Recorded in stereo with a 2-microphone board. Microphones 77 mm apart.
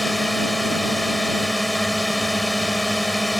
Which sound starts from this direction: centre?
A drone, at 0.0 s.